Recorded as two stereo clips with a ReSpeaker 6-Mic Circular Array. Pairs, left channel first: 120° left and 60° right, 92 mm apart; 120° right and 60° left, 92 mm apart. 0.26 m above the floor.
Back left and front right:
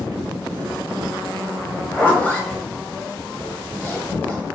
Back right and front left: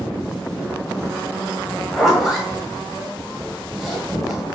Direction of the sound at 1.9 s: 150° left.